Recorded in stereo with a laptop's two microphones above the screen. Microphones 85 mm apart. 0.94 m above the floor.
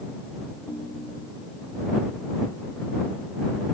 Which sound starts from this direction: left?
A ringtone, at 0.7 s.